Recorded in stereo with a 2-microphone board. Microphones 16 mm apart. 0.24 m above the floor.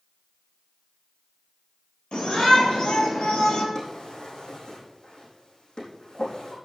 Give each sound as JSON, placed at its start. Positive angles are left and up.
{"t": 2.1, "sound": "a shout", "side_deg": 75, "distance_m": 7.0}
{"t": 3.8, "sound": "a drawer", "side_deg": 60, "distance_m": 4.5}